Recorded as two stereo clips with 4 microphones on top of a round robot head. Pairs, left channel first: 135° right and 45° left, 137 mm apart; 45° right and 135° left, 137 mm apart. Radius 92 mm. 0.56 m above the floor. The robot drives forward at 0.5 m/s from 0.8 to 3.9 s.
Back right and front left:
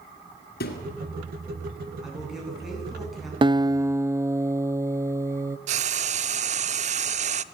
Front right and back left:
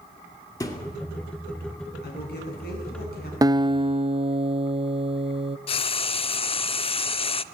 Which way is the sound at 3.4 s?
80° left.